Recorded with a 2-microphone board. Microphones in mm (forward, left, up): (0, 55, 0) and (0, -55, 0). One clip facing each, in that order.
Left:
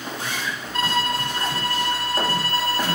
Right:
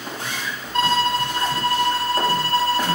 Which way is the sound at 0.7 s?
30° right (ahead or behind).